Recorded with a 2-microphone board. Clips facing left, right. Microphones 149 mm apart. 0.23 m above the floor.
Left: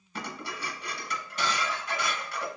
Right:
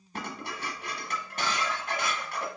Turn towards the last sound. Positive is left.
turn(degrees=-50)  # may be behind; listen again after turning